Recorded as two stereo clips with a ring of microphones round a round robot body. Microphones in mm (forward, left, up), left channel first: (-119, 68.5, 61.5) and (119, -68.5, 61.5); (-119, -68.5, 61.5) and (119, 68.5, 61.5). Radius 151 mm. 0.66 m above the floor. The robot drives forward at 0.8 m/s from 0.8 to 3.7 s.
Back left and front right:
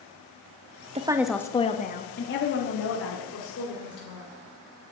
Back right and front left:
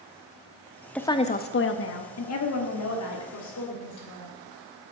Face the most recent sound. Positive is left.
turn(degrees=-170)